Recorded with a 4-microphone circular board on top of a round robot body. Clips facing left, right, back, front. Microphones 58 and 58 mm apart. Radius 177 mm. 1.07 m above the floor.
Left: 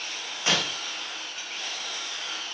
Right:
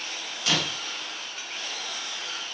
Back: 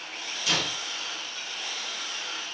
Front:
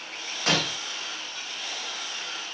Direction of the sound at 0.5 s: 30° left.